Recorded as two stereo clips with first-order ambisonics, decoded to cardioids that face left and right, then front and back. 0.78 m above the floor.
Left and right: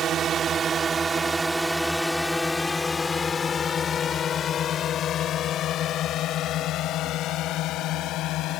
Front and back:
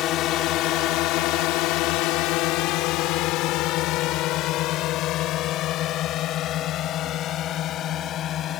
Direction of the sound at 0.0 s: 35° right.